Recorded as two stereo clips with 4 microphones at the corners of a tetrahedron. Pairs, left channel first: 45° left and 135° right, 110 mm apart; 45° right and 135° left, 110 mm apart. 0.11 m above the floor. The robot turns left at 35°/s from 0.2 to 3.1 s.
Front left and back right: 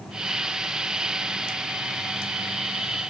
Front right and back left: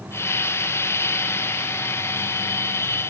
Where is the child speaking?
No child speaking in this recording.